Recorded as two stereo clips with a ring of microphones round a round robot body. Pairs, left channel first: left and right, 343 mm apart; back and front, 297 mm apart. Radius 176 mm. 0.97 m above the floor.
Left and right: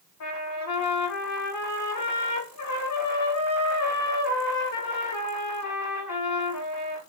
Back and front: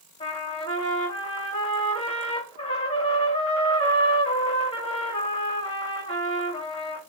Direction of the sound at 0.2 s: 115° left.